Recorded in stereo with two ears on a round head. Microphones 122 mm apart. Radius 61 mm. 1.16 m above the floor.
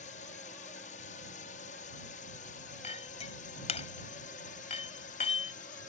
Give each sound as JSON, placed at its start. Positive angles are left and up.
{"t": 0.0, "sound": "a drone", "side_deg": 55}
{"t": 2.8, "sound": "a clink", "side_deg": 50}